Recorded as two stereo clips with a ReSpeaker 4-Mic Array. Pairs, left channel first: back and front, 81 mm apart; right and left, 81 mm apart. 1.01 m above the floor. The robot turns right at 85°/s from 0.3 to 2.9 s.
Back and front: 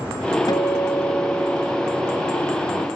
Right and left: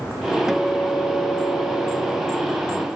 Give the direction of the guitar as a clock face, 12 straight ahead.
6 o'clock.